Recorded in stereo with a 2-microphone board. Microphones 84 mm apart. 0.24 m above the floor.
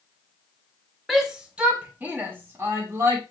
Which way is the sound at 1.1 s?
5° right (ahead or behind).